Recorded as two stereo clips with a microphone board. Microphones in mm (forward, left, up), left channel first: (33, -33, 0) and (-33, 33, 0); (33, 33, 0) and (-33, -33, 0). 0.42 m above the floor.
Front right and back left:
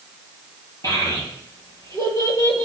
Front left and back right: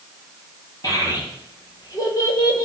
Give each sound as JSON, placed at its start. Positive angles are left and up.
{"t": 0.8, "sound": "a child speaking", "azimuth_deg": 5, "distance_m": 8.0}